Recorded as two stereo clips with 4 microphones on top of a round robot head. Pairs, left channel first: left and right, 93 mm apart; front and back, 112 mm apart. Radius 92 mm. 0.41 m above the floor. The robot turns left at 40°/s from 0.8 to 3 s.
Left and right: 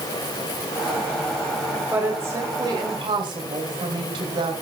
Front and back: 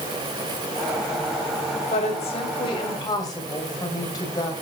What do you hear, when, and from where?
1.9 s a woman speaking: 15° right, 3 m; by 4.5 s 55° right, 3 m